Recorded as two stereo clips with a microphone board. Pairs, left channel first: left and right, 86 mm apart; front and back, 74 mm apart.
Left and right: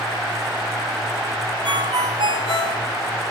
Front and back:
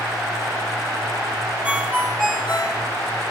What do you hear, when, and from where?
1.6 s a ringtone: 100° right, 4.5 m